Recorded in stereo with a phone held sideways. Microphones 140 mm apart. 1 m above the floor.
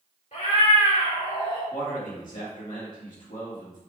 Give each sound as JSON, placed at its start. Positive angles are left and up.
{"t": 0.3, "sound": "a cat meowing", "side_deg": 60, "distance_m": 2.0}
{"t": 1.7, "sound": "a man speaking", "side_deg": 70, "distance_m": 1.3}